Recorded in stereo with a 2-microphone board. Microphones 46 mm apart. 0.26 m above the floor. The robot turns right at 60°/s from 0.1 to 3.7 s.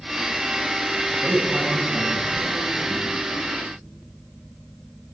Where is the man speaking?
10° right (ahead or behind), 1.6 m; by 3.0 s 20° left (ahead or behind), 1.6 m.